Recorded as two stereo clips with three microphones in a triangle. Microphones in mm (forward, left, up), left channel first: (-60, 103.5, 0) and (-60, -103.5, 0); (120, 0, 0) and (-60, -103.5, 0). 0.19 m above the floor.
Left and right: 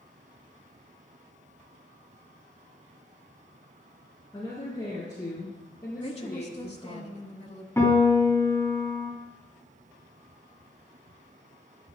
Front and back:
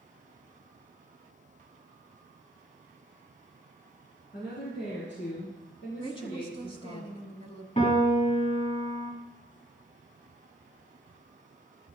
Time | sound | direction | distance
4.3 | a woman speaking | 20° left | 2.5 m
6.0 | a woman speaking | 65° left | 1.1 m
7.8 | a piano | 25° left | 1.8 m